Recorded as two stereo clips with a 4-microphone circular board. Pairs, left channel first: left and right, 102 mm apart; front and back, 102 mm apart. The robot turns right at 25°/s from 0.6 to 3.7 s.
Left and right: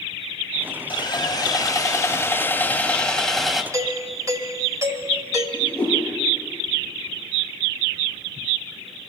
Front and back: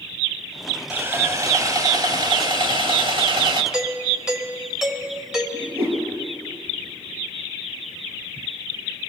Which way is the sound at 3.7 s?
100° right.